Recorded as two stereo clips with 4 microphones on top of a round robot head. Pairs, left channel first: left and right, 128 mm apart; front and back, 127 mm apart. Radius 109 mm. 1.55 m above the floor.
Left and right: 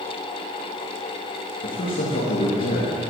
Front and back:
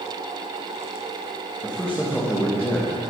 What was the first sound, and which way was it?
A man speaking, 80° left.